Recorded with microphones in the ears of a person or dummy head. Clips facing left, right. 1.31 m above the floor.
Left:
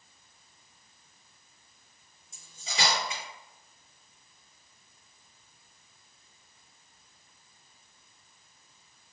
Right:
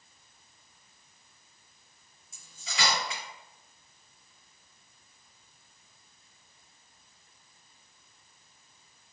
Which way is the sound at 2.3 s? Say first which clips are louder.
Left 2 dB; 30° left (ahead or behind).